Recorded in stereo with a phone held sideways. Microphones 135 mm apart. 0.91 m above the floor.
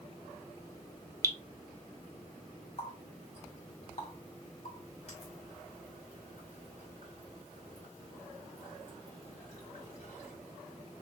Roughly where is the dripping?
Right.